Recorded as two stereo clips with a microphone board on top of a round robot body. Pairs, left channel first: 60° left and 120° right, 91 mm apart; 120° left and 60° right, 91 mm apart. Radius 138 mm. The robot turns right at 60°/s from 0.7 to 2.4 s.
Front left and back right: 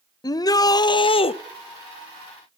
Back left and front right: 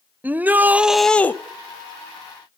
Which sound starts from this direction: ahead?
A shout, at 0.2 s.